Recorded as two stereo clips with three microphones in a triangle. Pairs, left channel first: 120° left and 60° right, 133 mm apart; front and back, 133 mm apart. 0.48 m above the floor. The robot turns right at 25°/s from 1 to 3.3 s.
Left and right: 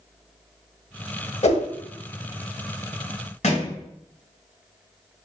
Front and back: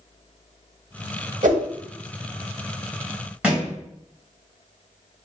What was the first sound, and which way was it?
A whoosh, 155° left.